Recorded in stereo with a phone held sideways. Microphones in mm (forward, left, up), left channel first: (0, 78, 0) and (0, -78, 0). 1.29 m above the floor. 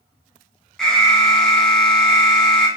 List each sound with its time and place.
0.8 s an alarm: 5° left (ahead or behind), 0.9 m